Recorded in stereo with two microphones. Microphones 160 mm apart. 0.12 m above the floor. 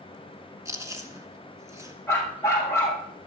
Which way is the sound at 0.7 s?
20° right (ahead or behind).